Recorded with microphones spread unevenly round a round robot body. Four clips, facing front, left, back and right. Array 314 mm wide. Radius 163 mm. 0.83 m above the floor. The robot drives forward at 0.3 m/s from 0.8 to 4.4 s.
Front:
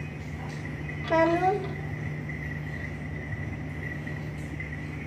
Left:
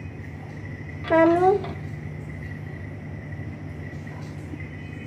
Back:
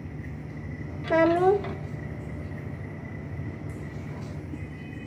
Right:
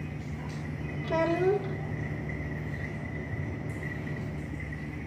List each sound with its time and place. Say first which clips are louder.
1.0 s a child speaking: left 9 dB, back 2 dB; 70° left, 0.7 m; by 1.8 s 90° left, 0.7 m